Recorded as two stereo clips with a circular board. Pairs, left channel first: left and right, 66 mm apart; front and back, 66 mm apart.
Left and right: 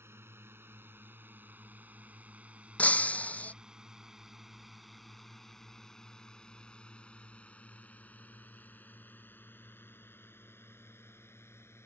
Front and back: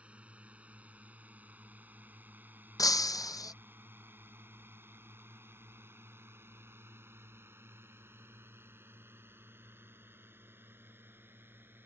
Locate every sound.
0.0 s a drone: 115° right; by 11.9 s 130° left
2.8 s breaking glass: 25° left